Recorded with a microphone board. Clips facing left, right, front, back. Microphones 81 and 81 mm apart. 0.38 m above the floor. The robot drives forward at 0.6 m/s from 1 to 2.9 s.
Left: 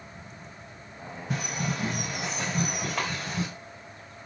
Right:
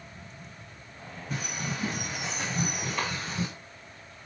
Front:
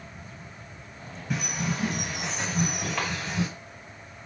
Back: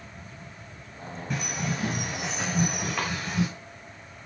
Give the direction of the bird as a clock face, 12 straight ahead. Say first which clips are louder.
Left 3 dB, front 1 dB; 9 o'clock.